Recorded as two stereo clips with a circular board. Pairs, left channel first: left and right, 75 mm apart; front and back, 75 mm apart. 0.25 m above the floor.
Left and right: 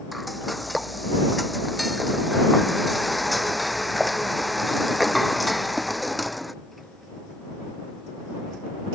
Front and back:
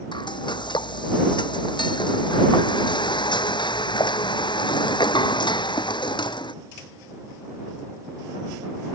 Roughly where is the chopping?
No chopping in this recording.